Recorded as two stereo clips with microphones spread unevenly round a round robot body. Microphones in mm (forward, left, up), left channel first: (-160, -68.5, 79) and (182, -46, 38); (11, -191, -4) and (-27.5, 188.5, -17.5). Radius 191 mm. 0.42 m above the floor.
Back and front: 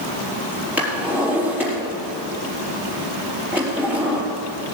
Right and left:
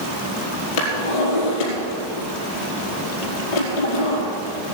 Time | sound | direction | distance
0.8 | a drawer | 80° right | 4.5 m